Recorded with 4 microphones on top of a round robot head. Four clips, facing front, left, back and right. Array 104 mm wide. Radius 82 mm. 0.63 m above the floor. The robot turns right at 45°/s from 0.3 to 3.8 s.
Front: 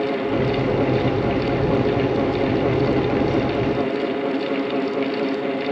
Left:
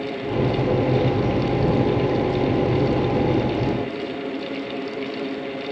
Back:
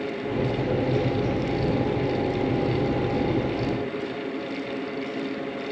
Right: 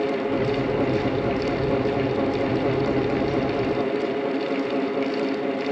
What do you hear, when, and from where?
Only background noise.